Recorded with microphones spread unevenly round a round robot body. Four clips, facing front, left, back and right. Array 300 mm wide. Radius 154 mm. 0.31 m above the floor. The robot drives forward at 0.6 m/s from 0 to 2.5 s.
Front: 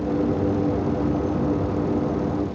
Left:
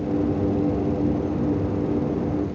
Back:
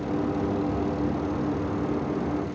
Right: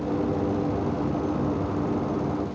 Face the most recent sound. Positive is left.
No sound to turn to.